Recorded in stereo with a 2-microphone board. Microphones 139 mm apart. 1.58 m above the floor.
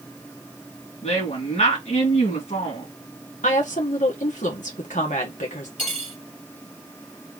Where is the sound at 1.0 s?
55° left (ahead or behind), 2 m.